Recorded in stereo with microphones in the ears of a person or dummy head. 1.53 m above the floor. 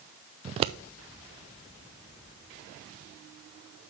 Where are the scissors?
35° right (ahead or behind), 0.5 m.